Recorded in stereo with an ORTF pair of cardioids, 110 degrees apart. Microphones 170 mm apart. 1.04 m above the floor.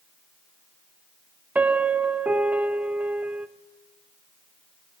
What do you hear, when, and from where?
1.6 s a piano: 10° right, 0.6 m